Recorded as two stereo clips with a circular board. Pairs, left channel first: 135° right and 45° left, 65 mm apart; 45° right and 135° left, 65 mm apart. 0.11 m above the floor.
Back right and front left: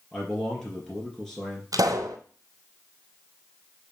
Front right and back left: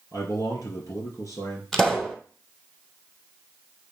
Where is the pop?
40° left, 1.0 m.